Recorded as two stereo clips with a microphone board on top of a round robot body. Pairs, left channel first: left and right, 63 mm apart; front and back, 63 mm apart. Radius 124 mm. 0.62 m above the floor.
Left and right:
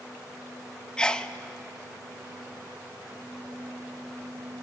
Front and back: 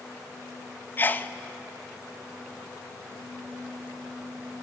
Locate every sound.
1.0 s a sneeze: 25° left, 0.7 m